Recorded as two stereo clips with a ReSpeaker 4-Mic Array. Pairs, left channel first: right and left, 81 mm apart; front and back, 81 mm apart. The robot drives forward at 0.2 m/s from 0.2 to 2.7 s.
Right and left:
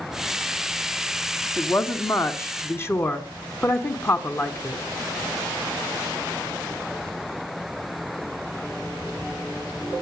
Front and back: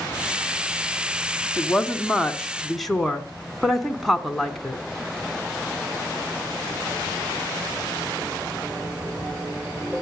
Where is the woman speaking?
65° right, 1.1 m; by 4.8 s 90° right, 1.1 m.